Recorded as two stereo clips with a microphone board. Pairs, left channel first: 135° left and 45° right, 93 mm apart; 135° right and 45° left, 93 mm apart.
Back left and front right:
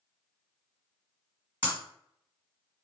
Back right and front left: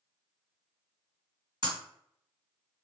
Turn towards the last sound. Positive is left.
turn(degrees=25)